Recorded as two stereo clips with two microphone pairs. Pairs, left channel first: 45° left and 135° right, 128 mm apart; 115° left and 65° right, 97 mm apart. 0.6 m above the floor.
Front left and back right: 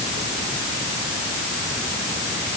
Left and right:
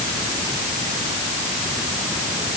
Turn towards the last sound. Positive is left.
No sound to turn to.